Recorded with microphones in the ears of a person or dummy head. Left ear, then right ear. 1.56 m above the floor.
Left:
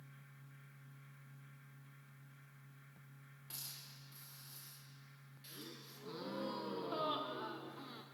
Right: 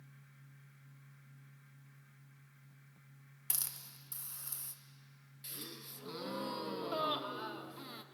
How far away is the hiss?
About 0.7 m.